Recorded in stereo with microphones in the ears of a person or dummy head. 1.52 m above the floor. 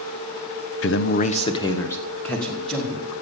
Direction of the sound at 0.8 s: 70° left (ahead or behind).